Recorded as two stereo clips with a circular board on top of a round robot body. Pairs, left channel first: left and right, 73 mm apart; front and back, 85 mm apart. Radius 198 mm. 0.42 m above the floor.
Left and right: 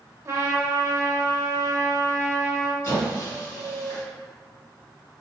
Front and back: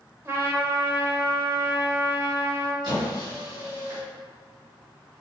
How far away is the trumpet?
About 0.9 m.